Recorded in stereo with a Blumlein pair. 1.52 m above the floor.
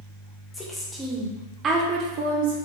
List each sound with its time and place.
0.5 s a woman speaking: 10° left, 1.0 m; by 2.6 s 55° right, 0.9 m